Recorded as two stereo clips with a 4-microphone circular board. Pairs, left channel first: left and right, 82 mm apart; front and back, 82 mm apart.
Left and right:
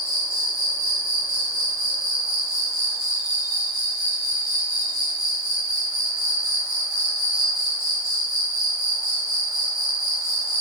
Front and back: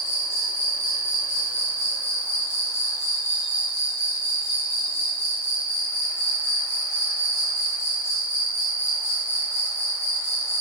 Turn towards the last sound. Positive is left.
turn(degrees=-30)